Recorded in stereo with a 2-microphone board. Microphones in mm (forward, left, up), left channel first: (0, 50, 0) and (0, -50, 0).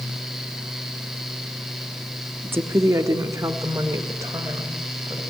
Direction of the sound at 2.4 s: 20° right (ahead or behind).